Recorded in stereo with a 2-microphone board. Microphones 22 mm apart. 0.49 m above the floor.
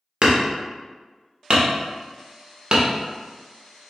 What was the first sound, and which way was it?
Hammering, 50° right (ahead or behind).